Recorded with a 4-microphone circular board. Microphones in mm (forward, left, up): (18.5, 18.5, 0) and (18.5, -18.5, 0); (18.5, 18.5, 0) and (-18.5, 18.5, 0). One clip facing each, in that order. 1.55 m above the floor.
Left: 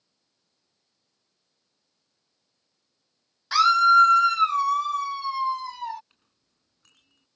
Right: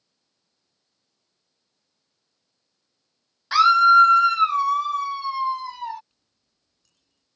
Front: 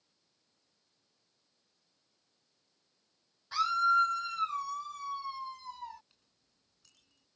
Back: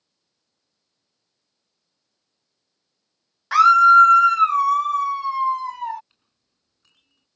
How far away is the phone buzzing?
I don't hear a phone buzzing.